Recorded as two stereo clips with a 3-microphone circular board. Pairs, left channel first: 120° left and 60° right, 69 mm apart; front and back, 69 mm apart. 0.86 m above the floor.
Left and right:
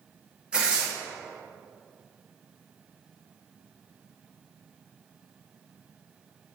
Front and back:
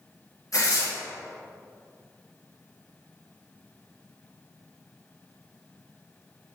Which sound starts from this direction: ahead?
Tearing paper, at 0.5 s.